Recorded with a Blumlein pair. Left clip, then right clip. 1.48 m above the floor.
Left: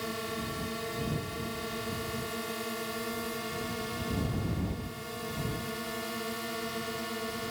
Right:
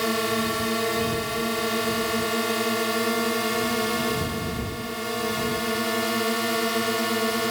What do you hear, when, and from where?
0.0 s a drone: 30° right